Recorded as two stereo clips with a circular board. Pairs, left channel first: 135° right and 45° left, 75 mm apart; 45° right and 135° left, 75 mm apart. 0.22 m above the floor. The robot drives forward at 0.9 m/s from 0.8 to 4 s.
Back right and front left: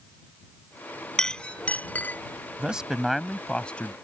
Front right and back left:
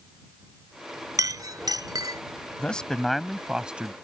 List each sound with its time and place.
1.2 s a clink: 145° left; by 2.2 s 160° left
2.6 s a man speaking: 5° right; by 3.9 s 175° right